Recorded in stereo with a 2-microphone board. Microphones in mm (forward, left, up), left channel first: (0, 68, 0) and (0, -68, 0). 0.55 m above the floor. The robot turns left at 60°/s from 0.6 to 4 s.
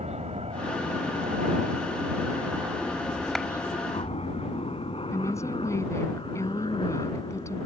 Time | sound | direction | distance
0.0 | a helicopter | 50° right (ahead or behind) | ?
3.4 | a clap | centre (ahead or behind) | ?
5.1 | a woman speaking | 20° left (ahead or behind) | ?